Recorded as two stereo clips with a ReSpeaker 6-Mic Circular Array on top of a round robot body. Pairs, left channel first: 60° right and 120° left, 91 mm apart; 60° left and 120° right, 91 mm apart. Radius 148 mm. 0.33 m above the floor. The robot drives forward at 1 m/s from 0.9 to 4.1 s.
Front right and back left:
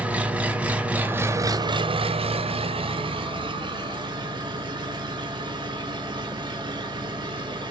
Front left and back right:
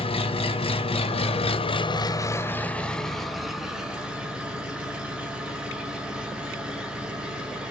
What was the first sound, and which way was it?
An engine running, 45° left.